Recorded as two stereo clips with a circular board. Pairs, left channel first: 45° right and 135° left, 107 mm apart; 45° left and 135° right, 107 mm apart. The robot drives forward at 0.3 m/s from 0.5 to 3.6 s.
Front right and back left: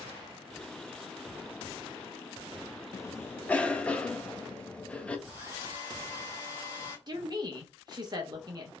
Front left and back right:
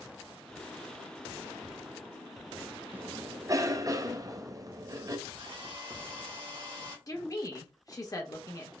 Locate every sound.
2.9 s a cough: 75° right, 0.5 m; by 5.2 s 115° right, 0.5 m
5.3 s a hair dryer: 165° right, 2 m
7.1 s a woman speaking: 95° left, 1.0 m